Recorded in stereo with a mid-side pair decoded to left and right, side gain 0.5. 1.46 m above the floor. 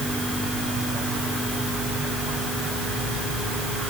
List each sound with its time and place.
Only background noise.